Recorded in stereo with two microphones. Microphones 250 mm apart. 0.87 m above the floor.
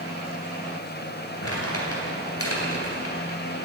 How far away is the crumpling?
About 2.5 m.